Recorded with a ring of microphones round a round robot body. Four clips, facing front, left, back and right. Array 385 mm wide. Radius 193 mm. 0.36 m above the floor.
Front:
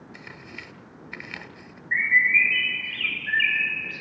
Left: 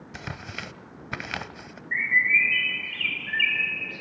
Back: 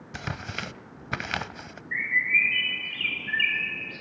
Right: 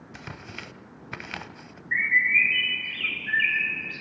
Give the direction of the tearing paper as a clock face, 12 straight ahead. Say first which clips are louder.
Left 4 dB, back 11 dB; 7 o'clock.